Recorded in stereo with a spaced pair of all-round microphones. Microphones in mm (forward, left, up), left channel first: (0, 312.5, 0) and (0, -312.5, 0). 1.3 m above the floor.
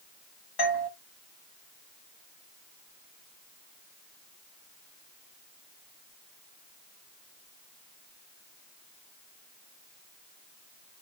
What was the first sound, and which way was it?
A doorbell, 40° left (ahead or behind).